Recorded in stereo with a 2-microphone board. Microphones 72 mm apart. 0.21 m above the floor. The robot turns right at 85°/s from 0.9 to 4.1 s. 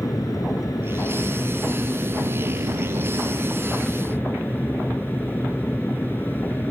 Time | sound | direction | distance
0.0 | an aircraft | 120° left | ?